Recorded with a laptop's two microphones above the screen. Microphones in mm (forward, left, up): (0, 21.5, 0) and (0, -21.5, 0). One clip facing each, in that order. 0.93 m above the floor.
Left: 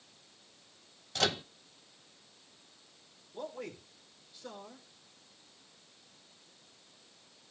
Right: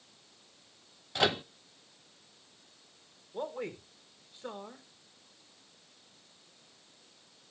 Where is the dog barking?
I don't hear a dog barking.